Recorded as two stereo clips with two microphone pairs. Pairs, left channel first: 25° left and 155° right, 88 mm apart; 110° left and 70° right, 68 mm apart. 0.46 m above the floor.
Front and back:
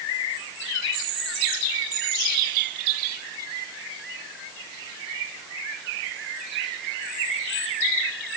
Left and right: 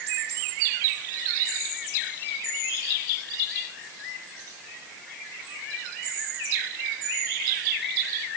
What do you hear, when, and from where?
Only background noise.